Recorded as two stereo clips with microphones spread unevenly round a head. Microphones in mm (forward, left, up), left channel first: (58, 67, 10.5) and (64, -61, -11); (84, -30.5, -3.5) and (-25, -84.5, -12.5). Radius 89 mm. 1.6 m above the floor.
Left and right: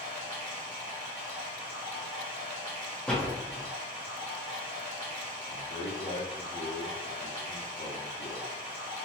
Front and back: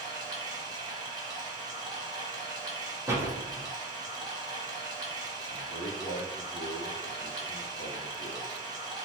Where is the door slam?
150° left, 0.6 m.